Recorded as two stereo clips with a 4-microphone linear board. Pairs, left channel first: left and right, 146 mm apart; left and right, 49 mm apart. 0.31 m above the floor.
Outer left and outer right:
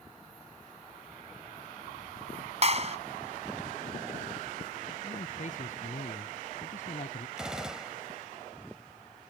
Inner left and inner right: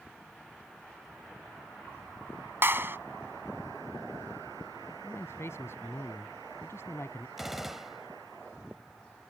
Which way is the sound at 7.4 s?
5° right (ahead or behind).